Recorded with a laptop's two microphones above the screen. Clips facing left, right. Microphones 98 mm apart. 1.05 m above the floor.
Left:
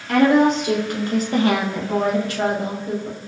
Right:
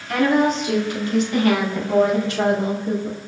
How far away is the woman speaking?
About 1.8 m.